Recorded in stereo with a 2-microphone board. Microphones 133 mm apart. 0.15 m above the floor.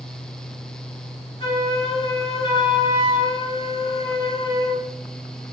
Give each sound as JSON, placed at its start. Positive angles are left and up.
{"t": 1.4, "sound": "a flute", "side_deg": 40, "distance_m": 1.9}